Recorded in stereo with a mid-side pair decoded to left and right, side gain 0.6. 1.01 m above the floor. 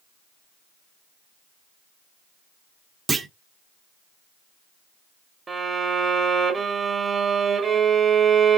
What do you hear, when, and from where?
3.1 s a clunk: 25° right, 0.7 m
5.5 s a violin: 30° right, 0.9 m